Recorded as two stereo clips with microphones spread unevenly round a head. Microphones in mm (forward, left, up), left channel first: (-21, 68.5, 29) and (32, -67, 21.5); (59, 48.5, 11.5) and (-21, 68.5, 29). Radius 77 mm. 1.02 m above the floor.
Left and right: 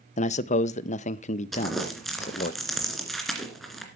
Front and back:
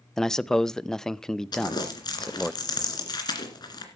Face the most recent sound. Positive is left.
turn(degrees=25)